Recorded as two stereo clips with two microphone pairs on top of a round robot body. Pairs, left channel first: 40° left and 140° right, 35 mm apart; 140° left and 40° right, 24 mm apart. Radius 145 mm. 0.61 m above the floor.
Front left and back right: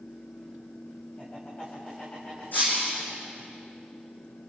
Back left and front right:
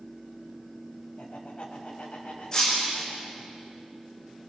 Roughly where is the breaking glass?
Left.